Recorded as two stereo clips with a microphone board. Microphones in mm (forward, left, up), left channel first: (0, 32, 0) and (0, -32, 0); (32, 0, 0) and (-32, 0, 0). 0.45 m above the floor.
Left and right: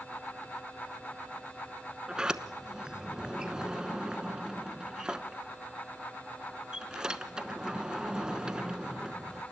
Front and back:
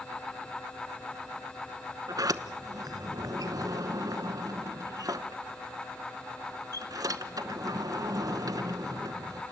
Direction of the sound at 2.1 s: 170° right.